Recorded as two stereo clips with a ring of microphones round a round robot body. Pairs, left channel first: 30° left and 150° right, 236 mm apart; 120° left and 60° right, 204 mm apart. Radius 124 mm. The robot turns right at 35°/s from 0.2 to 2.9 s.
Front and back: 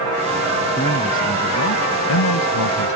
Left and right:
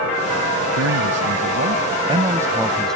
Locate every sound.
0.8 s a man speaking: 40° right; by 3.0 s 35° left